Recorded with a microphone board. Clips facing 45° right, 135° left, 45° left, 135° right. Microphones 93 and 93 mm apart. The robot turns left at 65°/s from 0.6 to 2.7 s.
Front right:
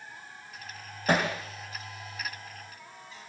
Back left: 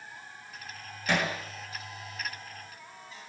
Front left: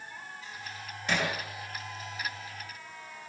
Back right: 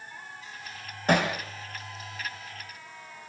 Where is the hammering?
90° right, 5 m; by 1.3 s 110° right, 5 m.